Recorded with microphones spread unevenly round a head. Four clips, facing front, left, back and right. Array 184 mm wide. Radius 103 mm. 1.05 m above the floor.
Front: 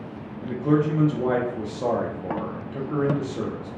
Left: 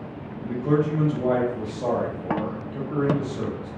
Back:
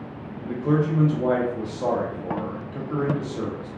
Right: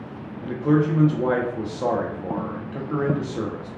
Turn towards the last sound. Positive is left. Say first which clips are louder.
# right 2 dB, front 1 dB
turn(degrees=-75)